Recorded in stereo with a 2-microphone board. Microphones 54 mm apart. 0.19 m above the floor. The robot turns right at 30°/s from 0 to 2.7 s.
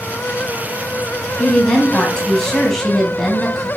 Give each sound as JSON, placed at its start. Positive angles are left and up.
{"t": 1.4, "sound": "a woman speaking", "side_deg": 20, "distance_m": 1.1}